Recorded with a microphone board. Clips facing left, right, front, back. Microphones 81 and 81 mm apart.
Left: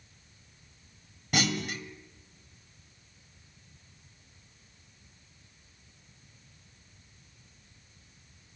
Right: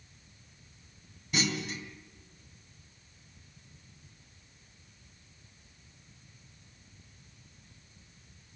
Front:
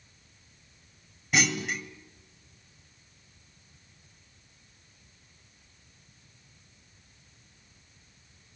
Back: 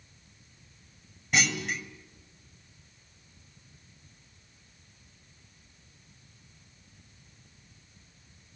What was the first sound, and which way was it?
A clunk, 90° left.